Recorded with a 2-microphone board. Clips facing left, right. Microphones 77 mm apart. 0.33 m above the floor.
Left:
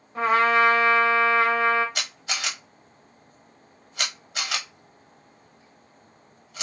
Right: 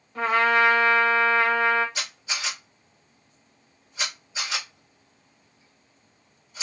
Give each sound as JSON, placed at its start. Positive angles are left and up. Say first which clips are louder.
{"t": 0.1, "sound": "a trumpet", "louder": "left 1 dB", "side_deg": 20, "distance_m": 1.3}
{"t": 1.9, "sound": "a camera shutter", "louder": "left 1 dB", "side_deg": 65, "distance_m": 0.9}